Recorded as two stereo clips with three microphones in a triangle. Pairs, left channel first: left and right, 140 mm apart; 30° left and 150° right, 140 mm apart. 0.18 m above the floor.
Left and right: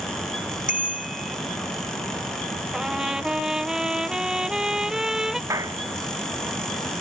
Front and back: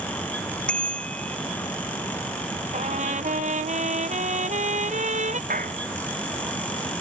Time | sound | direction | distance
0.7 | a bicycle bell | 110° left | ?
2.7 | a trumpet | 175° right | ?
5.5 | a clap | 155° right | ?